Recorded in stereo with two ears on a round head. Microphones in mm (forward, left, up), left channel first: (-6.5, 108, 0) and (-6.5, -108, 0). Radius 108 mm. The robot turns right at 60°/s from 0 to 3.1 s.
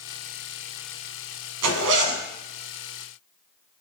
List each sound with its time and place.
1.6 s a zipper: 70° right, 1.7 m; by 2.2 s 35° right, 1.7 m